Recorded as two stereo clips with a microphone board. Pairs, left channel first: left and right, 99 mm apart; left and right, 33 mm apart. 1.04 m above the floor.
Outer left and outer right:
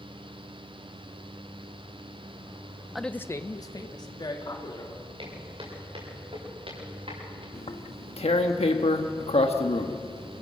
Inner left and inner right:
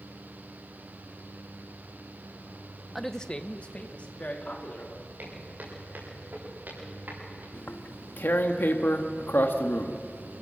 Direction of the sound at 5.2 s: 60° right (ahead or behind).